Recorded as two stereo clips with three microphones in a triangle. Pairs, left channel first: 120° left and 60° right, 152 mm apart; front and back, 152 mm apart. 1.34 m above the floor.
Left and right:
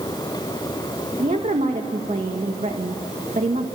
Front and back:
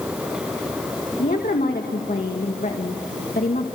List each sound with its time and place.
1.2 s a woman speaking: 25° right, 2 m